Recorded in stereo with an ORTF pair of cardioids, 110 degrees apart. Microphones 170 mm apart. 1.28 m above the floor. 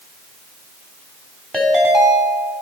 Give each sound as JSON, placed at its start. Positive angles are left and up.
{"t": 1.5, "sound": "a ringtone", "azimuth_deg": 5, "distance_m": 3.0}